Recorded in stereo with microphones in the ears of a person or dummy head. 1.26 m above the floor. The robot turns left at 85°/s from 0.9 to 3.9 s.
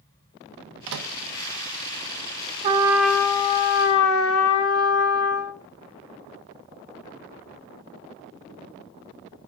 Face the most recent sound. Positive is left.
turn(degrees=105)